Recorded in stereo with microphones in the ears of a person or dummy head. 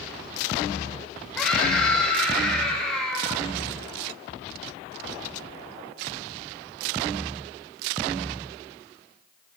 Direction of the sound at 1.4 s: Centre (ahead or behind).